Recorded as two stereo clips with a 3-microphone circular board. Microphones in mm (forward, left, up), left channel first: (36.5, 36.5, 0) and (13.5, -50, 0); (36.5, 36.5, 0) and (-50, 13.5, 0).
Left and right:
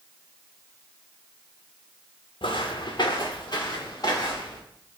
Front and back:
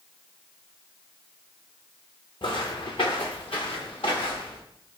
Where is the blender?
I don't hear a blender.